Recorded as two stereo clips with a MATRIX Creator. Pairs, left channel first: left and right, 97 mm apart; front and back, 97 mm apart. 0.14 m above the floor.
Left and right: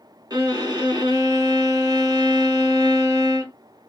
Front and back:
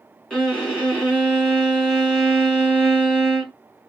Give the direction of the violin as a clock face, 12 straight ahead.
3 o'clock.